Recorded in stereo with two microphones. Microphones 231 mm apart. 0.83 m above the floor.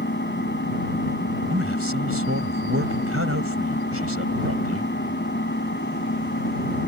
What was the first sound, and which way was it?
An engine running, 50° left (ahead or behind).